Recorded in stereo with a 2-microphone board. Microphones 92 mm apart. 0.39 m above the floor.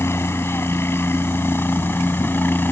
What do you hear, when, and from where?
0.0 s a helicopter: 25° left (ahead or behind); by 2.7 s 20° left (ahead or behind)